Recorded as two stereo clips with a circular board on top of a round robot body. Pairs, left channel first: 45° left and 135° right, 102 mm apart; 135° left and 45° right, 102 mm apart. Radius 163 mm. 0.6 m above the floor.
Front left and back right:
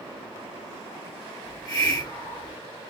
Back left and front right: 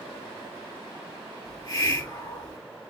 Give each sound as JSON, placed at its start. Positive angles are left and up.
{"t": 1.4, "sound": "a hiss", "azimuth_deg": 90, "distance_m": 2.0}